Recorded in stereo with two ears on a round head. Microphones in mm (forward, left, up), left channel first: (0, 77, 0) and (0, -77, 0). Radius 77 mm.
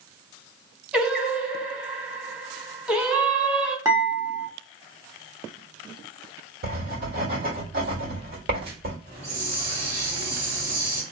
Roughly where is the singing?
Centre.